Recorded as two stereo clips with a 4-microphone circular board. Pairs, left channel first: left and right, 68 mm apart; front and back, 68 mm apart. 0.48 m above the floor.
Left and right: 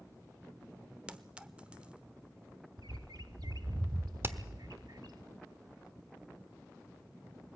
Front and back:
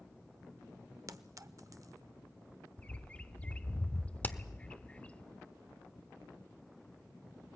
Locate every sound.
1.1 s a clink: 160° right, 0.8 m
2.8 s a bird: 75° right, 0.7 m
4.2 s hammering: 55° right, 1.0 m